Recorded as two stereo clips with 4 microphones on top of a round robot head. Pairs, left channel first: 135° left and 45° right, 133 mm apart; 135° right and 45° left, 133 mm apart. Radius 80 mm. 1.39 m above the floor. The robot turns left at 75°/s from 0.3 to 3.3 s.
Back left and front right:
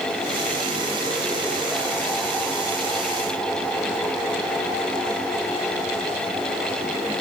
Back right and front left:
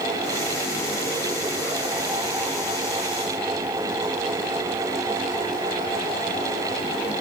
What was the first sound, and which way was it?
Only background noise.